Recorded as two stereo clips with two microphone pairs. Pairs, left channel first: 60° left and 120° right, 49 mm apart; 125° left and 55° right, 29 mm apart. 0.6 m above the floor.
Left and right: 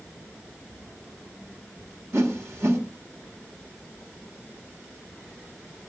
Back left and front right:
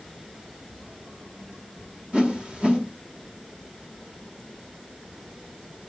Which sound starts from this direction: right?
A whoosh, at 2.1 s.